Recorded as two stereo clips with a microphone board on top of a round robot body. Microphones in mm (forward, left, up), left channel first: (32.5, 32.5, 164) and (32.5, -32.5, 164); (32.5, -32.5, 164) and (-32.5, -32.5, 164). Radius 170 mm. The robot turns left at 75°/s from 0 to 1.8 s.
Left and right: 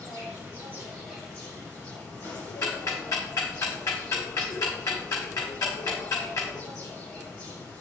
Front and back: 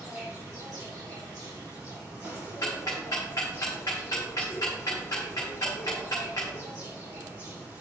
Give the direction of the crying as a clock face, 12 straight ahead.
I don't hear crying.